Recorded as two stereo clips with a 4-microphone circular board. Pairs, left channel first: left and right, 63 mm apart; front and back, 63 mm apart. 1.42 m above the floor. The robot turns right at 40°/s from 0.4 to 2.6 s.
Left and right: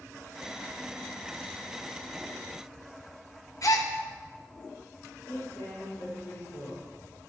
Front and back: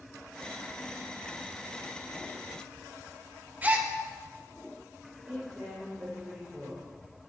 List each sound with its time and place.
3.6 s a gasp: 115° left, 1.6 m
5.3 s a woman speaking: 115° left, 5 m